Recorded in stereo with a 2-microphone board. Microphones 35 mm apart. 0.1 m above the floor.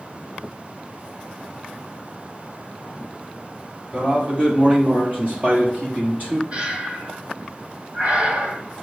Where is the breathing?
45° right (ahead or behind), 1.1 m.